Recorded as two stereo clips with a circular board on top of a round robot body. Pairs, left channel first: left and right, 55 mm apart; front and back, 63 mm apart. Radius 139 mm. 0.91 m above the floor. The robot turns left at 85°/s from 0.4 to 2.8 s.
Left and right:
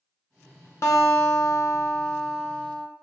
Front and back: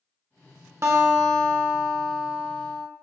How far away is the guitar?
About 0.5 m.